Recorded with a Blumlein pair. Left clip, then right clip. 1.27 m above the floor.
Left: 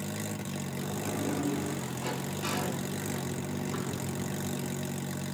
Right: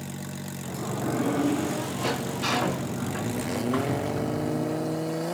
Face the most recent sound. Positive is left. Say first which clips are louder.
# right 8 dB
turn(degrees=-55)